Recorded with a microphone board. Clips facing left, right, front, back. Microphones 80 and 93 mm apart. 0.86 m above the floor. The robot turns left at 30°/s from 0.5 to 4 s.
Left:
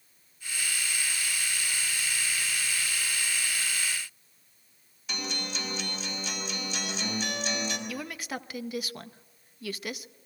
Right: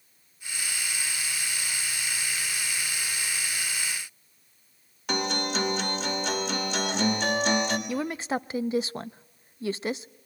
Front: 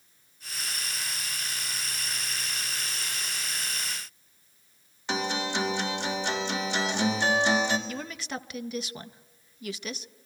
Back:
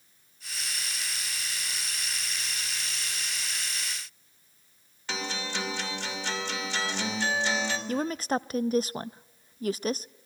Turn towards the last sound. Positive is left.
turn(degrees=-140)